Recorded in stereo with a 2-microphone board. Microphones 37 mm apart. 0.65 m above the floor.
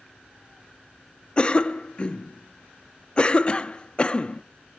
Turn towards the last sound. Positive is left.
turn(degrees=30)  # may be behind; listen again after turning